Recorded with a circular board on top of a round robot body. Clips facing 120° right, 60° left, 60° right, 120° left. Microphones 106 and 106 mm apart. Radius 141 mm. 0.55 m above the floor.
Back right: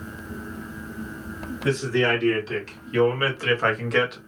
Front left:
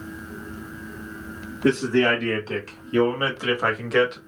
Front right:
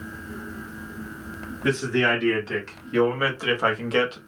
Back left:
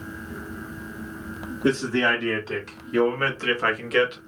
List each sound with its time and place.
1.6 s a man speaking: 70° left, 1.9 m; by 4.2 s 40° right, 1.4 m